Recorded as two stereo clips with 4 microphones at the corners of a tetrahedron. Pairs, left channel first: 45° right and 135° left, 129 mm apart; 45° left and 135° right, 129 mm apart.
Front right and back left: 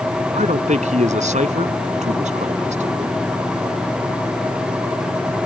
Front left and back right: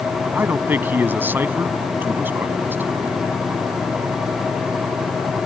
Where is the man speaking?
150° left.